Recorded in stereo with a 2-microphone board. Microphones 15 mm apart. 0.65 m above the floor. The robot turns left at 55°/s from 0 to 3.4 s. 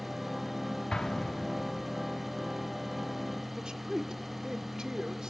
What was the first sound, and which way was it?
An explosion, 60° left (ahead or behind).